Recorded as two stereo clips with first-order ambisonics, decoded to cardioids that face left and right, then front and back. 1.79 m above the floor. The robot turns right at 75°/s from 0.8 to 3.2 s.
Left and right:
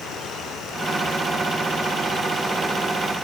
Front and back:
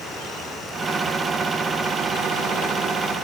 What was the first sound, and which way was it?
Only background noise.